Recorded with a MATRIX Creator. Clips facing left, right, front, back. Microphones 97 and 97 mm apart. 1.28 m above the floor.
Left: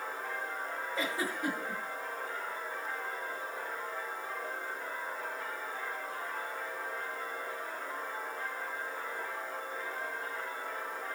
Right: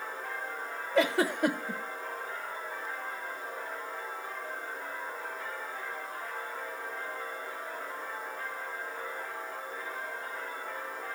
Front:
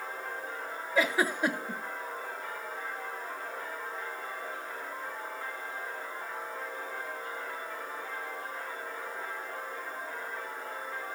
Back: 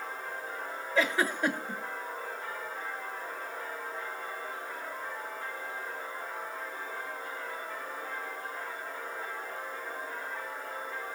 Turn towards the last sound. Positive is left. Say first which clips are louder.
# right 10 dB, front 1 dB
turn(degrees=-80)